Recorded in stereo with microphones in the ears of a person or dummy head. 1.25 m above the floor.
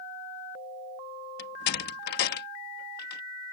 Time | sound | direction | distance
1.4 | a door slam | 55° left (ahead or behind) | ?